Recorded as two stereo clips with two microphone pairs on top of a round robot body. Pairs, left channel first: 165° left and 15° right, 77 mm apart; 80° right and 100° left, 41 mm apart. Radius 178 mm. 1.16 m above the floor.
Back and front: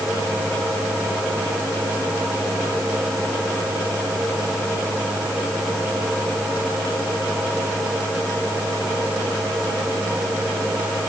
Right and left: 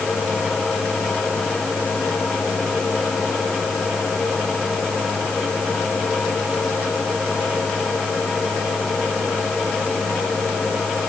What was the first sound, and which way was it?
Only background noise.